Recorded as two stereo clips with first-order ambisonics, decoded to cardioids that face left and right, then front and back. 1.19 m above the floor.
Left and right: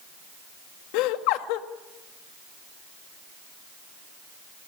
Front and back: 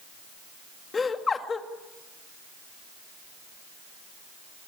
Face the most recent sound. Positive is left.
turn(degrees=75)